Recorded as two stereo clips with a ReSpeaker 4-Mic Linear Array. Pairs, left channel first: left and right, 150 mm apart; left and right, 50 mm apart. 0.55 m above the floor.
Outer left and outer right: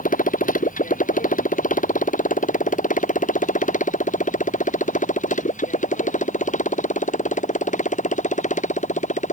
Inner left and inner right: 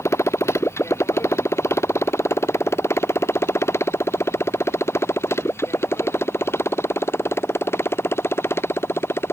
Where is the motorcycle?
60° left (ahead or behind); by 9.3 s 55° left (ahead or behind).